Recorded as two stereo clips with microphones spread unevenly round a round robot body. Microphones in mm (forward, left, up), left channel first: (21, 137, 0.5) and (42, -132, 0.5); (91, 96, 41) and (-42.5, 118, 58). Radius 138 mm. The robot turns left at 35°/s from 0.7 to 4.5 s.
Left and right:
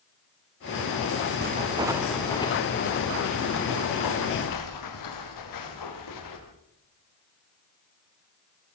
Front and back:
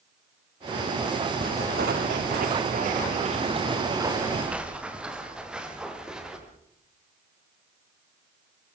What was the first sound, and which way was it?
Footsteps, 140° right.